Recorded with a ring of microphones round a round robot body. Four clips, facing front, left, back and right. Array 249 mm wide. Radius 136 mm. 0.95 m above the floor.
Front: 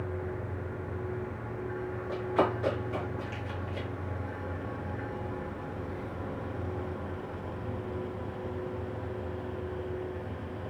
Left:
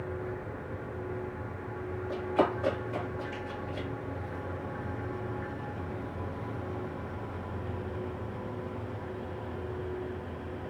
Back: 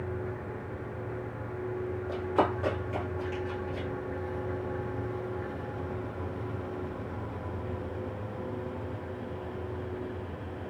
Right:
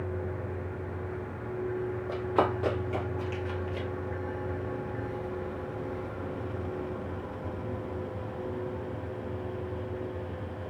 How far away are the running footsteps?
About 1.9 m.